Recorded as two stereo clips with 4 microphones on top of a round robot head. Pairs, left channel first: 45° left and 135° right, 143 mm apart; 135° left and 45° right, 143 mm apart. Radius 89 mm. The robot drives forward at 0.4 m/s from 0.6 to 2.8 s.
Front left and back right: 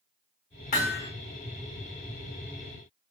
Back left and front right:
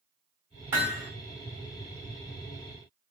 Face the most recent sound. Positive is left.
turn(degrees=45)